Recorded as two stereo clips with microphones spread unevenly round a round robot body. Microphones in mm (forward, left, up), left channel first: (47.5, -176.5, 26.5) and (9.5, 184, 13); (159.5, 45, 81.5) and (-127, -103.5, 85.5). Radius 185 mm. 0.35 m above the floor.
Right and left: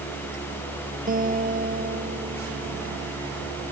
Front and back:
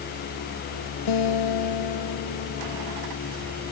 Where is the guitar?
30° left.